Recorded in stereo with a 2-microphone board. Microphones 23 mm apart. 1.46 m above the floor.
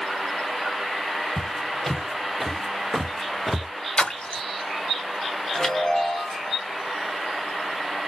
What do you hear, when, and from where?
1.4 s footsteps: 25° left (ahead or behind), 2.5 m; by 3.7 s 15° right (ahead or behind), 1.4 m
4.0 s a splash: 60° left (ahead or behind), 0.8 m
5.5 s a chime: 20° left (ahead or behind), 1.9 m